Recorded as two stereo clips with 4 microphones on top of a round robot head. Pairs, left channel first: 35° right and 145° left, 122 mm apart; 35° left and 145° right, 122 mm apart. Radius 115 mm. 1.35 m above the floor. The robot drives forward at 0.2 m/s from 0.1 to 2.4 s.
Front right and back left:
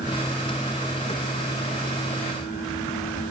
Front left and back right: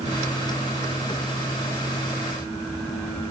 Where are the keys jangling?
I don't hear keys jangling.